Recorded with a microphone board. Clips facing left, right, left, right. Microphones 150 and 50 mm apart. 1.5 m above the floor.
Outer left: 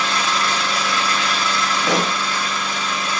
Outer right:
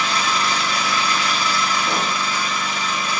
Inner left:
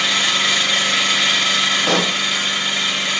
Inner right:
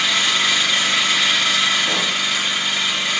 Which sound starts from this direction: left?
A pop, at 1.8 s.